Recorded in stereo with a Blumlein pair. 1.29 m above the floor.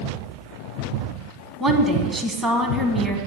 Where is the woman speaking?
15° right, 2 m.